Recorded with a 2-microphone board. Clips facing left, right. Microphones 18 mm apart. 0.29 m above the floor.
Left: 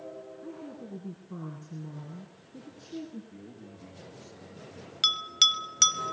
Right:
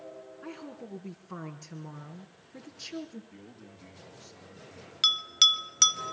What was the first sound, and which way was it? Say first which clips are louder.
A woman speaking: right 2 dB; 55° right (ahead or behind).